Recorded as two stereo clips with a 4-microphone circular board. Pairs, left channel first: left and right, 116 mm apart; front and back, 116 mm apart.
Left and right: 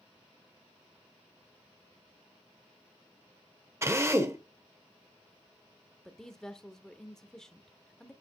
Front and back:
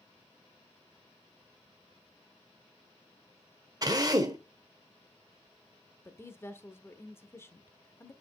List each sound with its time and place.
3.8 s a drill: 145° right, 1.2 m
6.0 s a woman speaking: 15° left, 0.8 m